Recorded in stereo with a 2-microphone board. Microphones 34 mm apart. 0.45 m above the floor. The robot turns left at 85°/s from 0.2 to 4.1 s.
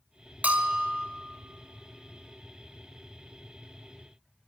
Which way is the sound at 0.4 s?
120° right.